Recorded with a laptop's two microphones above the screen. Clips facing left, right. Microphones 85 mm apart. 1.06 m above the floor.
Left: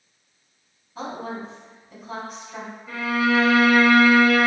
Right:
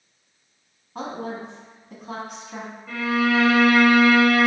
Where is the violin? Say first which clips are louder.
Even; 15° left (ahead or behind), 1.4 m.